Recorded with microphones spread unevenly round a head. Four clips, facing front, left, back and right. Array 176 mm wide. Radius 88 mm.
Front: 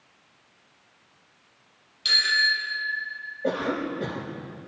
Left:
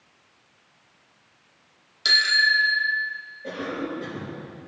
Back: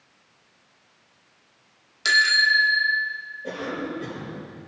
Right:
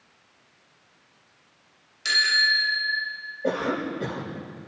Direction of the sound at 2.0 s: 150° left.